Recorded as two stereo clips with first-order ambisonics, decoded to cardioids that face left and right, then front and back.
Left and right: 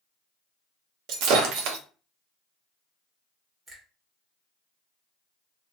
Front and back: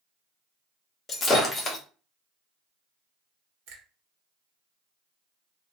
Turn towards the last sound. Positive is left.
turn(degrees=-165)